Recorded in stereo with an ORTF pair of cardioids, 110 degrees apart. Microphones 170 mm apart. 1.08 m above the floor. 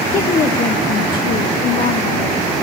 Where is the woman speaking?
30° left, 0.9 m; by 2.6 s 70° left, 2.5 m.